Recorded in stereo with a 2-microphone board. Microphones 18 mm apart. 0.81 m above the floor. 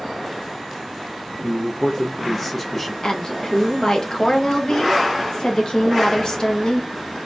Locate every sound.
1.4 s a man speaking: 20° left (ahead or behind), 0.8 m
3.0 s a woman speaking: 45° left (ahead or behind), 0.8 m